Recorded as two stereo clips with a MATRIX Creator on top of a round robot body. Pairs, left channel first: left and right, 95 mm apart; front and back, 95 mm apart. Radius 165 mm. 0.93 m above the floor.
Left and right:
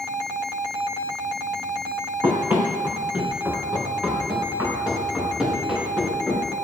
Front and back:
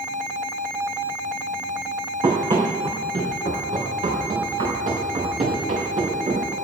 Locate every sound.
2.2 s running footsteps: 150° right, 3 m; by 6.5 s 175° right, 6.5 m